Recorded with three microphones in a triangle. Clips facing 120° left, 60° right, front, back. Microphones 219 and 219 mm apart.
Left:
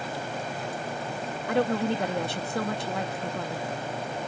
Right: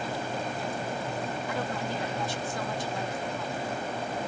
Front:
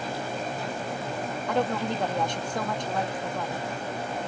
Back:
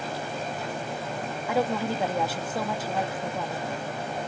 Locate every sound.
1.5 s a woman speaking: 100° left